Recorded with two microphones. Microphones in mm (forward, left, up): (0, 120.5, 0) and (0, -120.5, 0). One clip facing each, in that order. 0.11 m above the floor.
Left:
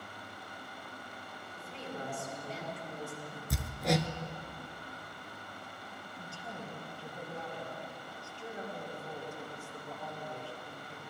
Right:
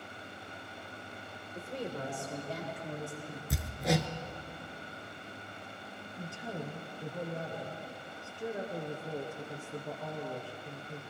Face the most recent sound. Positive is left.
turn(degrees=-60)  # may be behind; listen again after turning